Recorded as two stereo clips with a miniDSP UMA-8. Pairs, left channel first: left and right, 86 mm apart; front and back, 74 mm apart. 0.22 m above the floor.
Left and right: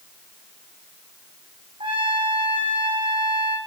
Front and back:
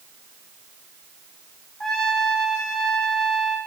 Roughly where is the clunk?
I don't hear a clunk.